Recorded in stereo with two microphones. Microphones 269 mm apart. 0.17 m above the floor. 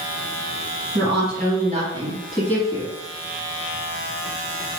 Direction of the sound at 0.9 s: 45° right (ahead or behind).